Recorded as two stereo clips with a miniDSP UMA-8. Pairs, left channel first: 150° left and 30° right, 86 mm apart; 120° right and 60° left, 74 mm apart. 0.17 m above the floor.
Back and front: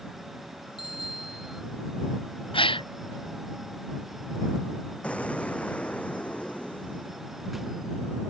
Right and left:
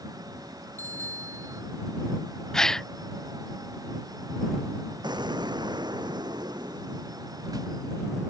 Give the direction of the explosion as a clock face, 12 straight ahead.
10 o'clock.